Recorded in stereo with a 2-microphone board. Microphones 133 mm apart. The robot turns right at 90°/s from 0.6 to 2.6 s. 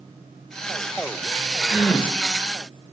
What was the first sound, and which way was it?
A gasp, 15° right.